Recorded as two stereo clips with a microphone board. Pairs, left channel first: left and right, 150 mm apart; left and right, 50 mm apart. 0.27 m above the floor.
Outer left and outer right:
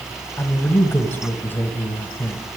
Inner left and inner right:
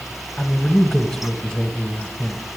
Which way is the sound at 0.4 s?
15° left (ahead or behind).